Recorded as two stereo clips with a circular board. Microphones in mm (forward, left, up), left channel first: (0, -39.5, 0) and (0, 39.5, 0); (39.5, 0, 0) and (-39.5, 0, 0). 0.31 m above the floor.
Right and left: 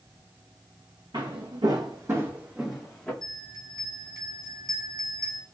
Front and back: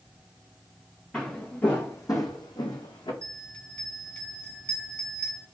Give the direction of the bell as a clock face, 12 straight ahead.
10 o'clock.